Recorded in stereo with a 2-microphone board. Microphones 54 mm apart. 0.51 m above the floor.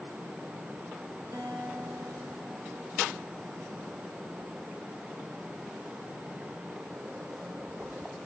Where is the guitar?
70° right (ahead or behind), 7 m.